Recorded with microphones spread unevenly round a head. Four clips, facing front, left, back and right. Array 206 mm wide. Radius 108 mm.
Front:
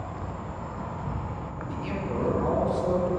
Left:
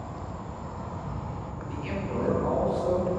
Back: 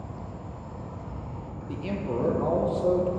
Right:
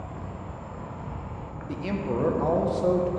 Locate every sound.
0.0 s an insect: 15° left, 0.7 m
1.7 s a man speaking: 120° right, 0.8 m